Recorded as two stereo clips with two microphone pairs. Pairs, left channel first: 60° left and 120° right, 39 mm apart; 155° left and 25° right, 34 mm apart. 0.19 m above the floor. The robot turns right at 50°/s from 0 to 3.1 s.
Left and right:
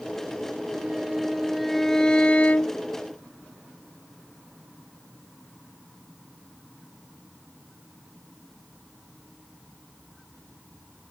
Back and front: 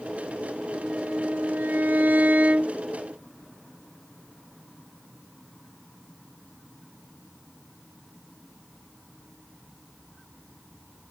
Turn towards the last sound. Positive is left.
turn(degrees=45)